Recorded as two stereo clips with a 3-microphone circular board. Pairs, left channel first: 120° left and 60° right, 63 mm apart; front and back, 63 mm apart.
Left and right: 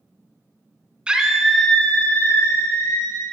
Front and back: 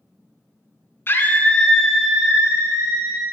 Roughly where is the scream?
Ahead.